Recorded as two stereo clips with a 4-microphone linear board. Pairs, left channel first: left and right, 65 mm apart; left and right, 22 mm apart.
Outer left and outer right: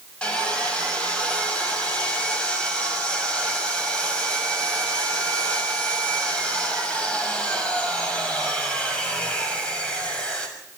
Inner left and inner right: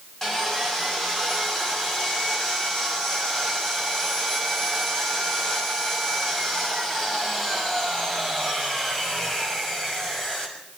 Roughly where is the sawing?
Centre.